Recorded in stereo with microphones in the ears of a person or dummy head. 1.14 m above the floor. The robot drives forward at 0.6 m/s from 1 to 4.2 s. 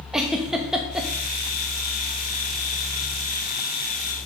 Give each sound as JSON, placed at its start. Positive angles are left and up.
{"t": 0.1, "sound": "a giggle", "side_deg": -5, "distance_m": 1.2}